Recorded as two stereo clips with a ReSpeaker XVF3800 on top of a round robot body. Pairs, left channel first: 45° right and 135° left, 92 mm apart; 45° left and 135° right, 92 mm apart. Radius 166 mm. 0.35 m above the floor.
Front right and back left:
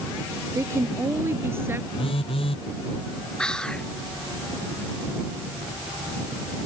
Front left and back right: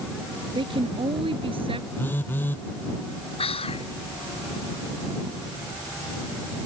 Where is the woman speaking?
165° right; by 1.9 s 155° right.